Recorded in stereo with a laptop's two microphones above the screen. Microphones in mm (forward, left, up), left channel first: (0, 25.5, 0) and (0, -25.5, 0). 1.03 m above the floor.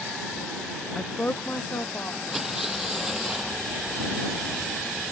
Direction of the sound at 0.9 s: 10° left (ahead or behind).